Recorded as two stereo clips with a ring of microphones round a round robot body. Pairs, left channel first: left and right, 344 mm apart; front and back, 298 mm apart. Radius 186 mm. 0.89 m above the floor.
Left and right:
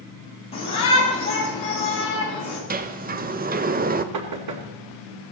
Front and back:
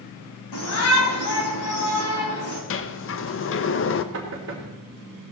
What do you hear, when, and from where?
0.5 s a shout: 15° left, 8.5 m
2.7 s a sliding door: 30° right, 1.0 m
4.1 s knocking: 130° right, 2 m